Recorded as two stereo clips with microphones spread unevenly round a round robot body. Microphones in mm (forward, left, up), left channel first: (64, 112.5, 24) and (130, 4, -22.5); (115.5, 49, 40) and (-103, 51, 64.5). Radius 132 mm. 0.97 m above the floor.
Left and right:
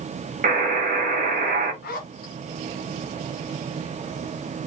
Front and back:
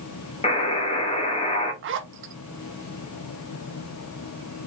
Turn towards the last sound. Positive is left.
turn(degrees=145)